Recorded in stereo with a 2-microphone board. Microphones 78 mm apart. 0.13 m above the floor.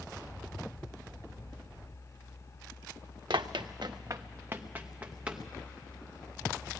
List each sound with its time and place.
3.3 s running footsteps: 75° right (ahead or behind), 0.9 m; by 5.4 s 15° right (ahead or behind), 2.5 m